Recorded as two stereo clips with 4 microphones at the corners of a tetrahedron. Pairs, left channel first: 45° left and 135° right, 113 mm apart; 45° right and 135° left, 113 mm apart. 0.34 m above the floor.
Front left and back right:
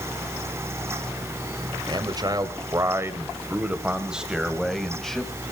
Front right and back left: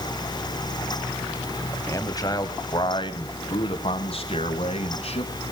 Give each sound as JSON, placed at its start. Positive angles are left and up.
{"t": 1.9, "sound": "a man speaking", "azimuth_deg": -100, "distance_m": 1.7}